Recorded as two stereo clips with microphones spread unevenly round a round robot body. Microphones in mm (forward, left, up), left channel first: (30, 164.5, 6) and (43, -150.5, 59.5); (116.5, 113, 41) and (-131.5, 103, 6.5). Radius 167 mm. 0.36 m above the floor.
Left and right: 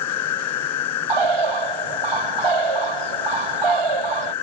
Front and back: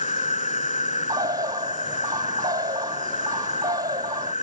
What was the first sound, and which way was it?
An insect, 65° left.